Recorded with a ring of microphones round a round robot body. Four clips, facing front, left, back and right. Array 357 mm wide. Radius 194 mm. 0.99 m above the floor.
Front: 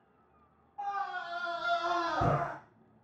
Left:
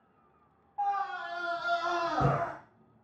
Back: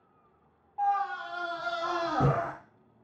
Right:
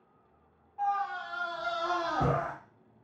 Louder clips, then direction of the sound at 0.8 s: Even, back 7 dB; 140° left.